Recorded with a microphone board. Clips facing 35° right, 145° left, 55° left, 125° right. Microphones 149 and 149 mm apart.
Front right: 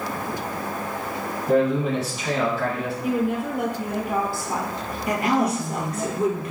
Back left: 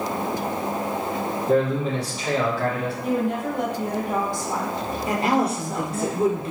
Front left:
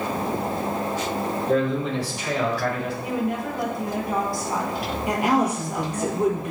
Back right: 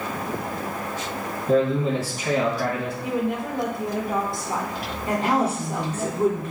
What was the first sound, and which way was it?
A man speaking, 110° right.